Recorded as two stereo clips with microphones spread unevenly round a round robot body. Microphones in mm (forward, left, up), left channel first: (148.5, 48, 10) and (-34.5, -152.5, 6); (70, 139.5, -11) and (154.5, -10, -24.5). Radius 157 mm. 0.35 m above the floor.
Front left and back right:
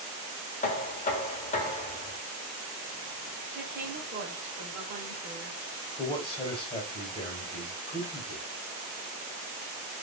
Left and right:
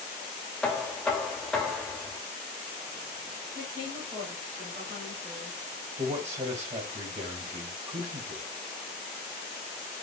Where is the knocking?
25° left, 0.7 m.